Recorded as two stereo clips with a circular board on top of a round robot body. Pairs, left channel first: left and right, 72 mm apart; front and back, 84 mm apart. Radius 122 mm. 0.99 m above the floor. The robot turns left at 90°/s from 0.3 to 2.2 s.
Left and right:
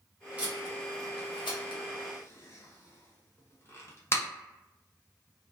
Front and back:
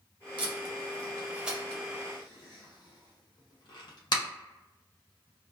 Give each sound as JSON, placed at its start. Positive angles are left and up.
{"t": 0.4, "sound": "tape being pulled", "azimuth_deg": -165, "distance_m": 0.7}